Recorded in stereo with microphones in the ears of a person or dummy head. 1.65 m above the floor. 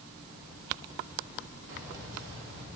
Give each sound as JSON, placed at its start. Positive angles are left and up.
{"t": 1.7, "sound": "keys jangling", "side_deg": -65, "distance_m": 1.8}